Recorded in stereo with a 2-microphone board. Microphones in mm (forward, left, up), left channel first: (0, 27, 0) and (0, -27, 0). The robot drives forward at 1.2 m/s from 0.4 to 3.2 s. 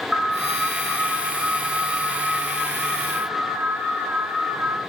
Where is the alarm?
15° right (ahead or behind), 5 m; by 4.8 s 35° right (ahead or behind), 2.5 m.